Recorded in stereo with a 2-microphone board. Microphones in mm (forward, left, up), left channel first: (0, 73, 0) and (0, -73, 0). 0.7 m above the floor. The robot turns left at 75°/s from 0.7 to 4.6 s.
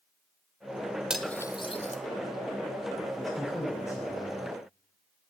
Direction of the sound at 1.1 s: 5° right (ahead or behind).